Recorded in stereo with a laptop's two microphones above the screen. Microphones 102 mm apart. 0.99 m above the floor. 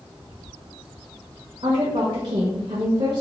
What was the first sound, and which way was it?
A woman speaking, 70° right (ahead or behind).